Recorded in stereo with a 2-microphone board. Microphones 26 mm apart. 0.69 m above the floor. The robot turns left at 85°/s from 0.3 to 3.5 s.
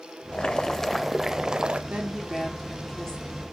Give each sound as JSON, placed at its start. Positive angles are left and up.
{"t": 0.3, "sound": "boiling", "azimuth_deg": 60, "distance_m": 0.6}
{"t": 1.9, "sound": "a woman speaking", "azimuth_deg": -110, "distance_m": 1.9}